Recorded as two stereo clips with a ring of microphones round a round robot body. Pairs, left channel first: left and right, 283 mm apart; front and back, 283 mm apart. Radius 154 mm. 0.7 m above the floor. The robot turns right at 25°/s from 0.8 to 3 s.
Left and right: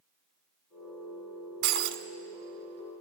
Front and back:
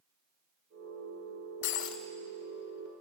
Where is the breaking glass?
60° right, 1.3 m; by 2.0 s 50° right, 1.3 m.